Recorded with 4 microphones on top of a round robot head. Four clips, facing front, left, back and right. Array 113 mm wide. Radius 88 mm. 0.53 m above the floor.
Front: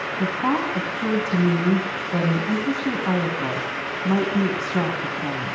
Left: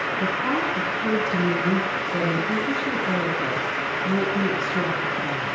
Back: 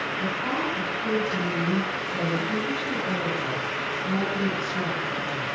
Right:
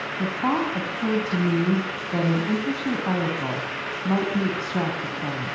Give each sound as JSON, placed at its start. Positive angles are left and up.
{"t": 0.2, "sound": "a woman speaking", "azimuth_deg": -45, "distance_m": 5.5}